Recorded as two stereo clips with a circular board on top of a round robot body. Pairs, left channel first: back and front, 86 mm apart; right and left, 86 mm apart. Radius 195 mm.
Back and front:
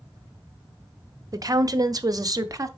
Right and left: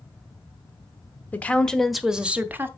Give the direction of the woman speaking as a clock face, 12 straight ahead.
1 o'clock.